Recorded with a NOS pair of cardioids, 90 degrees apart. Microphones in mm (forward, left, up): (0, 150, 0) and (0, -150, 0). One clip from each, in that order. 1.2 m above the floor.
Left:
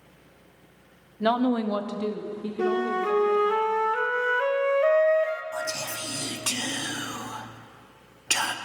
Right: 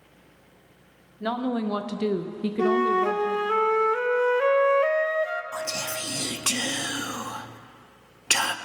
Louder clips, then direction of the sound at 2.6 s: Right 4 dB; 10° right.